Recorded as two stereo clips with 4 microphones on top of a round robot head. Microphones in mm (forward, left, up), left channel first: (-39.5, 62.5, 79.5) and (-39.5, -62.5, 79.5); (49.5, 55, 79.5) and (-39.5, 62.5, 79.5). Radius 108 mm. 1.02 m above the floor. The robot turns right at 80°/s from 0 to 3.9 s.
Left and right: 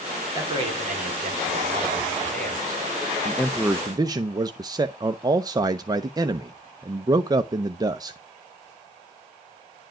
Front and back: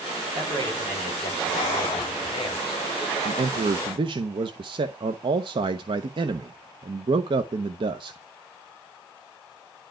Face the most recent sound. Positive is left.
turn(degrees=-150)